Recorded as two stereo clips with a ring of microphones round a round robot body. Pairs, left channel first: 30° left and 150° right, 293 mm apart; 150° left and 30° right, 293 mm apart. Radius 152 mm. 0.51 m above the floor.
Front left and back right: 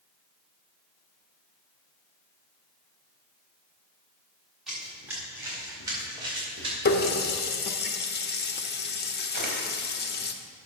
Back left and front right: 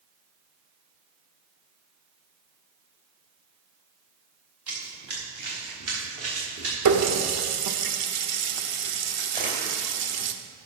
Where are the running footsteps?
60° right, 4 m; by 6.8 s 75° right, 6.5 m.